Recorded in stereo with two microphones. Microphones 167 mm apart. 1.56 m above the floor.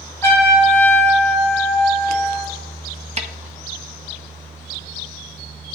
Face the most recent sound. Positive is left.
turn(degrees=-40)  # may be behind; listen again after turning